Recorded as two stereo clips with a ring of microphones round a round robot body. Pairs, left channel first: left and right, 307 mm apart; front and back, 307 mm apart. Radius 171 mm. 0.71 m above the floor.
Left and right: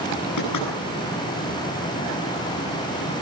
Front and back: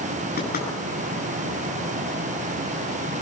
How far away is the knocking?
About 9.5 m.